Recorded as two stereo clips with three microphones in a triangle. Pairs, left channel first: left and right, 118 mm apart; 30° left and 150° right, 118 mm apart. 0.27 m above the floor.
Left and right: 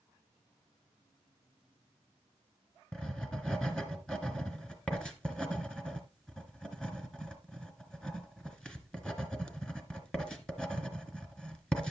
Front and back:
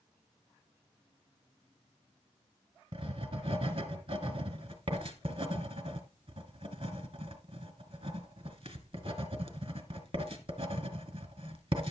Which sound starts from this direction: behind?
Writing, at 2.9 s.